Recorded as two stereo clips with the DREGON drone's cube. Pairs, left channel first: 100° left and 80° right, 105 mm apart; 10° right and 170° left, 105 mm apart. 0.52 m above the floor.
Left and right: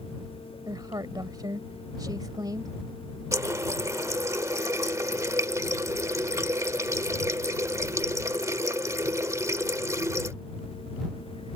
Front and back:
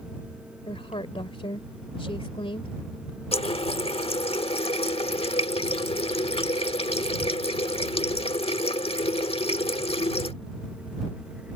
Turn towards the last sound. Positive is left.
turn(degrees=-20)